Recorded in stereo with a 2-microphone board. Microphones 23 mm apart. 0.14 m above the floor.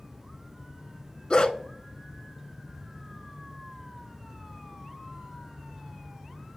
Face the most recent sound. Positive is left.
turn(degrees=40)  # may be behind; listen again after turning